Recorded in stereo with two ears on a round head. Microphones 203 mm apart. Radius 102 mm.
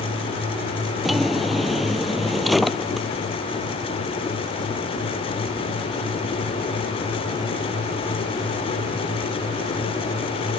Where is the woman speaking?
No woman speaking in this recording.